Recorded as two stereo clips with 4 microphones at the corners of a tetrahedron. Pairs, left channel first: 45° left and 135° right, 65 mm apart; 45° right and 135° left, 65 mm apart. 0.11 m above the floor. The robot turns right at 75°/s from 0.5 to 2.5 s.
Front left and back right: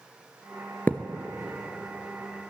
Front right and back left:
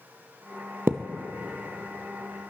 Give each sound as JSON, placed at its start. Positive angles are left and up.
{"t": 0.9, "sound": "a thud", "azimuth_deg": 100, "distance_m": 0.7}